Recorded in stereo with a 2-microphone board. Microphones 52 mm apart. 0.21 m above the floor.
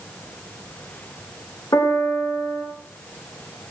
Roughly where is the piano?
Left.